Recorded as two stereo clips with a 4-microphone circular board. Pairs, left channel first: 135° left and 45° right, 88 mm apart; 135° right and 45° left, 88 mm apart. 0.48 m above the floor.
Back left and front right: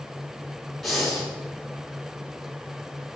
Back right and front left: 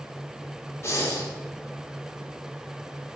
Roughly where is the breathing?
Behind right.